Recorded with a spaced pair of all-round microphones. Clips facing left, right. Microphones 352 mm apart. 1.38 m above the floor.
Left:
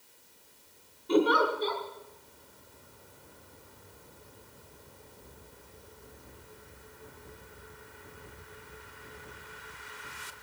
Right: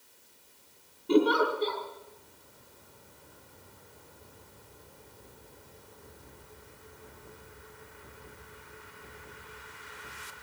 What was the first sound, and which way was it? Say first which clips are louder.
A giggle: right 1 dB; 40° right (ahead or behind).